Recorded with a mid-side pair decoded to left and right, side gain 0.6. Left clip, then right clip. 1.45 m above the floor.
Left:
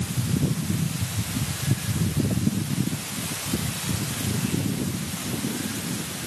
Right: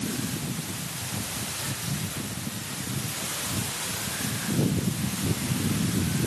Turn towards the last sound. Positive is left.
No sound to turn to.